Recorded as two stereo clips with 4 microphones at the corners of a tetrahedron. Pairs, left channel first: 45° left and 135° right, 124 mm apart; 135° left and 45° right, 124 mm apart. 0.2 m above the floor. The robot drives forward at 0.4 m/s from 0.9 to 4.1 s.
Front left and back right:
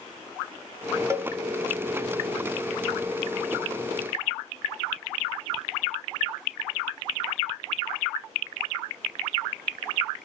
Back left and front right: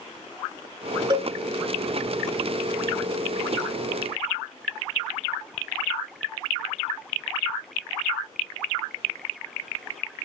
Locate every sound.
1.1 s a cowbell: 80° right, 1.8 m